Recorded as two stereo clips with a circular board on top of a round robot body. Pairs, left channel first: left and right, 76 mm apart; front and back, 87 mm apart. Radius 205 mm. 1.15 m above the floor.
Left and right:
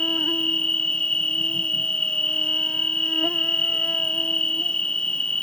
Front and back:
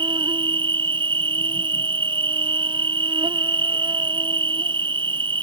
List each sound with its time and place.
0.0 s an insect: 165° left